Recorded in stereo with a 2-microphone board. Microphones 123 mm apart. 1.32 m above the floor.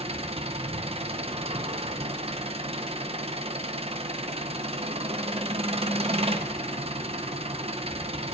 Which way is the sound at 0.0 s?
55° right (ahead or behind).